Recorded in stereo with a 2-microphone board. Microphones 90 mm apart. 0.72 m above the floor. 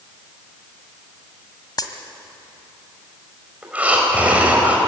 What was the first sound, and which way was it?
A dropped coin, 50° left (ahead or behind).